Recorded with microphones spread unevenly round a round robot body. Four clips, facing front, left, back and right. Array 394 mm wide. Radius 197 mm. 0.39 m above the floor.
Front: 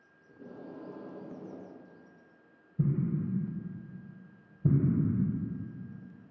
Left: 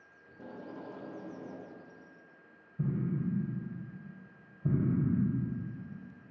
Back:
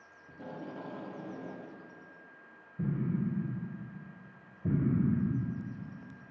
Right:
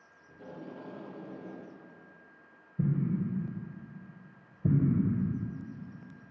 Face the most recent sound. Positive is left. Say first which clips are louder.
# right 3 dB, front 2 dB
turn(degrees=-55)